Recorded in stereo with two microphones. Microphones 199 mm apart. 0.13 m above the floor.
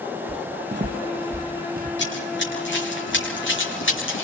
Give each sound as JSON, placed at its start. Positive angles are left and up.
{"t": 0.3, "sound": "footsteps", "side_deg": -30, "distance_m": 0.8}
{"t": 2.0, "sound": "running footsteps", "side_deg": 65, "distance_m": 7.5}